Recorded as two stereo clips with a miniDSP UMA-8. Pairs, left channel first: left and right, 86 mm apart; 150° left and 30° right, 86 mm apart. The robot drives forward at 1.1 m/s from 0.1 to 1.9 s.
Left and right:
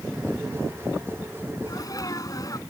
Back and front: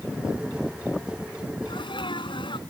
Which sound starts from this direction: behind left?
A sneeze, at 1.7 s.